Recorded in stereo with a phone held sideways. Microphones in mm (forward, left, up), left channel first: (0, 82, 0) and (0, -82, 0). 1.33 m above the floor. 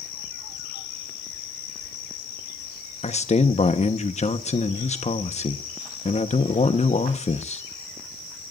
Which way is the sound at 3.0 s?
45° left (ahead or behind).